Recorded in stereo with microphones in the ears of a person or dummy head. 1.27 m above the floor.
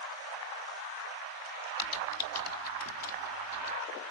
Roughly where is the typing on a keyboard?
Left.